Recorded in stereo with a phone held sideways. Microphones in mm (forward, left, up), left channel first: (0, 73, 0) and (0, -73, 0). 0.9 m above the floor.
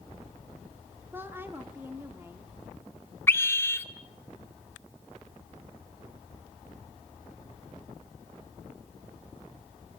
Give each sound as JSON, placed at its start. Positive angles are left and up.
{"t": 1.1, "sound": "a woman speaking", "side_deg": -15, "distance_m": 1.9}
{"t": 3.3, "sound": "a scream", "side_deg": 15, "distance_m": 1.8}